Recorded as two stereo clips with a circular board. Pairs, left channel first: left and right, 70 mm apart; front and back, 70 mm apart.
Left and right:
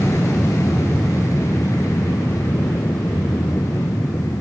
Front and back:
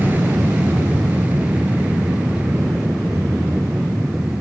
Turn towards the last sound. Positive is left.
turn(degrees=110)